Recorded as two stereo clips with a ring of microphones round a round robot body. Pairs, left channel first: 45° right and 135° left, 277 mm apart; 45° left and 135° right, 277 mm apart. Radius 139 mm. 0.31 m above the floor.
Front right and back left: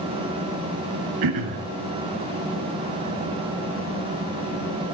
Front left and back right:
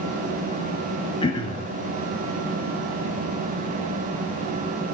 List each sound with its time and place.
1.2 s throat clearing: 120° left, 1.6 m